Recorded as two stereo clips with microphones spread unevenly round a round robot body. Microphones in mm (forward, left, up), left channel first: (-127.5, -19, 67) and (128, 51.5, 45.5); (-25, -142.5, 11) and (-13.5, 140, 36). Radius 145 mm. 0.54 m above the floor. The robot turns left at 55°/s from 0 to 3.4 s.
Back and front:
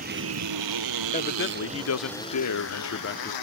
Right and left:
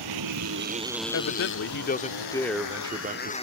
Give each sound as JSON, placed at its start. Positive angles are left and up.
{"t": 0.0, "sound": "a motorcycle", "azimuth_deg": 80}
{"t": 1.1, "sound": "a man speaking", "azimuth_deg": -100}